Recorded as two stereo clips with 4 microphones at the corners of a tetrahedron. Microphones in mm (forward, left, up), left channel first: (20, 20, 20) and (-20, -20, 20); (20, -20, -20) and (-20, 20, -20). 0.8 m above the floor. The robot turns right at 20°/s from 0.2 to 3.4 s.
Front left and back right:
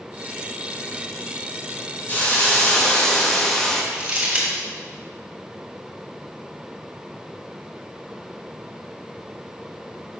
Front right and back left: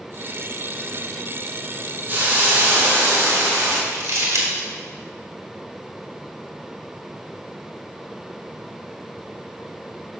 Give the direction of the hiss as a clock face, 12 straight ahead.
9 o'clock.